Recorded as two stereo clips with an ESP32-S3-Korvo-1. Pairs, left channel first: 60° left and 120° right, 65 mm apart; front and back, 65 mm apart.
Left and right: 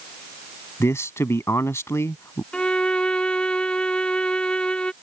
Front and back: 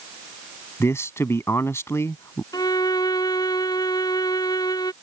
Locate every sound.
0.8 s a man speaking: 30° left
2.5 s a violin: 15° right